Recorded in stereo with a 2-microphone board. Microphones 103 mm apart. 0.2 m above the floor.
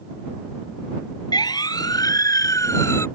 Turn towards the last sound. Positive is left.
turn(degrees=25)  # may be behind; listen again after turning